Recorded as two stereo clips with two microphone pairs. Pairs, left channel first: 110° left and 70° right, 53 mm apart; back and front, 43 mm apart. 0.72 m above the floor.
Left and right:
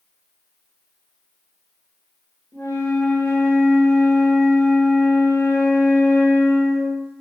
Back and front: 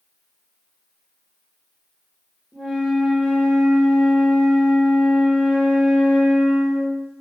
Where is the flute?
100° left, 2.5 m.